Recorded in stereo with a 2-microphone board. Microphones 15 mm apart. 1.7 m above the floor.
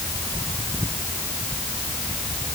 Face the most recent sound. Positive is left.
No sound to turn to.